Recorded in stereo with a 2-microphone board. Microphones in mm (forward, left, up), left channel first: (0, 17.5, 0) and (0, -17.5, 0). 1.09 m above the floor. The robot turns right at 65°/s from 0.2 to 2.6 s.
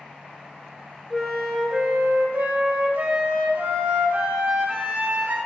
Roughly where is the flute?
Behind.